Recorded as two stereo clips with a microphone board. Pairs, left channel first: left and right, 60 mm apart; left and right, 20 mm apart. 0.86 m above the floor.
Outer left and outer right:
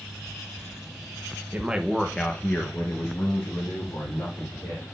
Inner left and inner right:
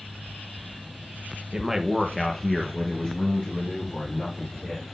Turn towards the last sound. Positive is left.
turn(degrees=70)  # may be behind; listen again after turning